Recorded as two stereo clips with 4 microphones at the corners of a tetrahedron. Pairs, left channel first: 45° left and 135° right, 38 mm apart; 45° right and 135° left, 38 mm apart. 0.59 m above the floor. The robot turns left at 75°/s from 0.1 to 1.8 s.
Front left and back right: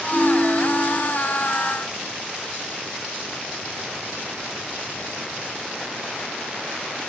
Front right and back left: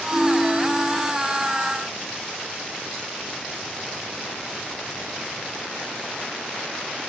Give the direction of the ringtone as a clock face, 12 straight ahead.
2 o'clock.